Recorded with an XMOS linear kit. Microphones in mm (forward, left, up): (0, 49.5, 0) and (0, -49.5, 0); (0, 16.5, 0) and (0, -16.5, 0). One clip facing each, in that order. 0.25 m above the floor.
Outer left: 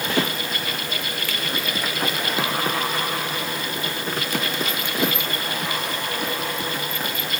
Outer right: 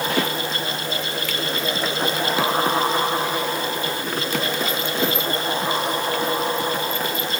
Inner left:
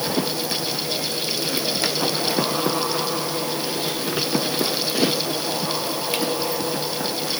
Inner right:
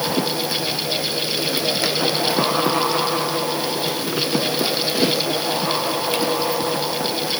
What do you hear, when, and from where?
Only background noise.